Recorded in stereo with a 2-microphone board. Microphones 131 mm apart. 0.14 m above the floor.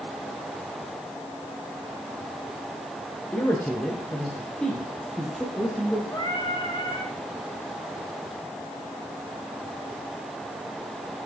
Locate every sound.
3.3 s a man speaking: 15° left (ahead or behind), 6 m; by 6.0 s 5° right (ahead or behind), 5 m
6.1 s singing: 30° left (ahead or behind), 9.5 m